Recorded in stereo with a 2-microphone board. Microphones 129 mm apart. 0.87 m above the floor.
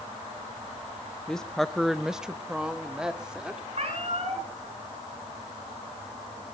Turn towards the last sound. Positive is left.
turn(degrees=-55)  # may be behind; listen again after turning